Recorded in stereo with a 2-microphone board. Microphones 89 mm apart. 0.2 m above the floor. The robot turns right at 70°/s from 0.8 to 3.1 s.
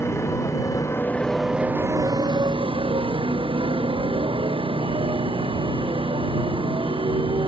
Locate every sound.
0.0 s a motorcycle: 30° left (ahead or behind); by 7.5 s 75° right (ahead or behind)